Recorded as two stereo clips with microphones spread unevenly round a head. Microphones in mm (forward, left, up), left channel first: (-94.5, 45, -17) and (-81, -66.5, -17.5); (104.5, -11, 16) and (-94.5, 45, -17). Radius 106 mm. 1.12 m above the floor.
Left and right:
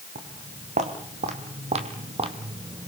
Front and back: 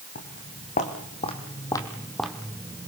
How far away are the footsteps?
About 4 m.